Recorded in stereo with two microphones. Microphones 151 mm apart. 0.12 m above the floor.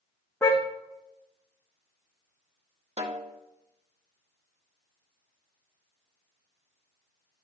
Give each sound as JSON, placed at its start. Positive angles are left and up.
{"t": 0.4, "sound": "a car horn", "side_deg": 15, "distance_m": 3.0}
{"t": 3.0, "sound": "a snare drum", "side_deg": -50, "distance_m": 1.3}